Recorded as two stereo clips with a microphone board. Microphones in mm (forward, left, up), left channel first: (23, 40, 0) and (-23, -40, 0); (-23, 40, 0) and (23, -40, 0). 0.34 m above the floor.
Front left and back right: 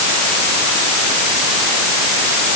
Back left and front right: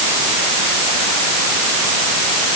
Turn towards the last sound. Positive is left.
No sound to turn to.